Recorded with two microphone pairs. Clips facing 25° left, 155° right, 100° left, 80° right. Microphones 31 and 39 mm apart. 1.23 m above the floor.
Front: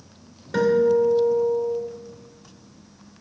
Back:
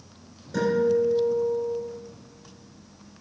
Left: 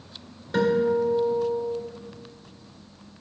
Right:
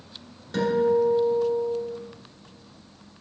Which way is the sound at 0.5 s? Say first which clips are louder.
Front 4 dB, even; 25° left.